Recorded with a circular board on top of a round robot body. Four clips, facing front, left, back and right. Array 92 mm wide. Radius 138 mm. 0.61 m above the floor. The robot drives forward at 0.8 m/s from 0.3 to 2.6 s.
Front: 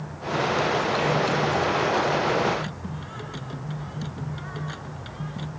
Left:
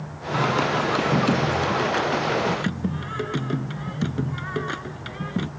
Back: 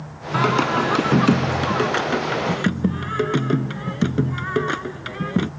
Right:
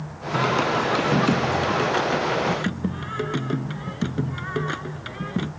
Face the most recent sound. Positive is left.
turn(degrees=180)